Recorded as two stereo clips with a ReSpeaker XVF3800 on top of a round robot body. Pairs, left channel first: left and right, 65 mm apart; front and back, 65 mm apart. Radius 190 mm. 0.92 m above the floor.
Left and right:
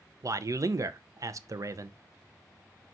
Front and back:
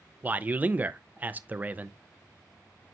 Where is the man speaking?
115° right, 0.6 m.